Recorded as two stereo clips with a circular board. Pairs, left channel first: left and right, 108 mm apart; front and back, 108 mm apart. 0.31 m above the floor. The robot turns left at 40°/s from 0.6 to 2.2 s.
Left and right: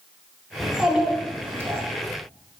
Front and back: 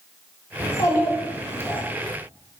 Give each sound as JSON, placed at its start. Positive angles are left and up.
{"t": 0.6, "sound": "a child speaking", "azimuth_deg": -5, "distance_m": 0.6}